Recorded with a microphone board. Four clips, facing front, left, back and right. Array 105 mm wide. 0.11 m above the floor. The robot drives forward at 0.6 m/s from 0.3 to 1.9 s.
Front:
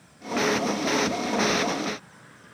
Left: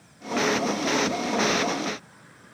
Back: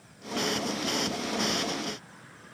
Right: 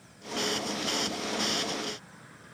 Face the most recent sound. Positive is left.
No sound to turn to.